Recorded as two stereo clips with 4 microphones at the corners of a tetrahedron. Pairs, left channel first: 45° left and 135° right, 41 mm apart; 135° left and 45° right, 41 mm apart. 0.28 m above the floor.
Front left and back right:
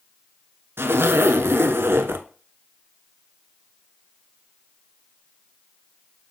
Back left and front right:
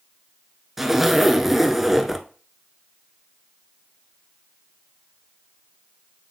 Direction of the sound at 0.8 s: 130° right.